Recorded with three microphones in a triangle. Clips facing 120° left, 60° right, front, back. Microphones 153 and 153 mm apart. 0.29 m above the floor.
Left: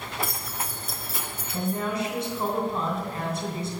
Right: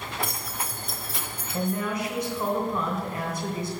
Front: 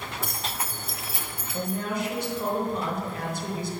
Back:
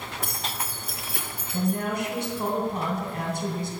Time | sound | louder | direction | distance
0.2 | keys jangling | even, back 1 dB | 155° right | 2.5 m
1.5 | a woman speaking | even, back 3 dB | 175° left | 3 m